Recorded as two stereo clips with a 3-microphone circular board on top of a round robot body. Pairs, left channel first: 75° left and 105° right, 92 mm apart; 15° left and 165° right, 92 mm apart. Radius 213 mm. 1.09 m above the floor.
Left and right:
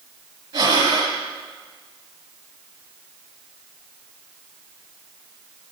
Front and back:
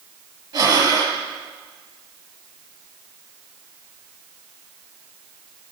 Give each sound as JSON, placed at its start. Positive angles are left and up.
{"t": 0.5, "sound": "breathing", "azimuth_deg": -125, "distance_m": 4.0}